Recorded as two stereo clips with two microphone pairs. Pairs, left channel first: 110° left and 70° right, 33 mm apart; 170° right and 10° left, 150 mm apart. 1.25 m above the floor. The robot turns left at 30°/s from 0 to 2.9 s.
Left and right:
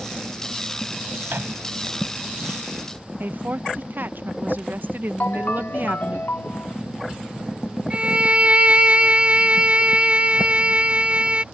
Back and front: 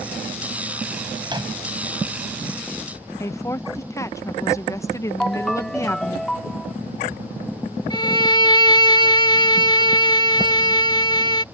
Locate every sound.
1.2 s a microwave: 50° right; by 1.6 s 55° right
3.2 s a woman speaking: 100° right
5.2 s a ringtone: 105° left
7.9 s a violin: 115° right